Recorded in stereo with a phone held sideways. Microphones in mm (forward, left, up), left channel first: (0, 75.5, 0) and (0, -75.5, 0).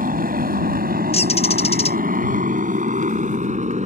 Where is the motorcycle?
75° right (ahead or behind); by 3.9 s 50° right (ahead or behind).